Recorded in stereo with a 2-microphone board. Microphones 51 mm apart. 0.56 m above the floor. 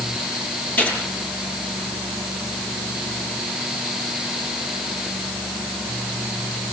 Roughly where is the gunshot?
Left.